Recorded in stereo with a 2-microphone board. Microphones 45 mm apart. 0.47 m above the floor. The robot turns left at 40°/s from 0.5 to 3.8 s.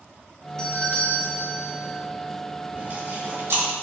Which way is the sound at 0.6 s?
140° left.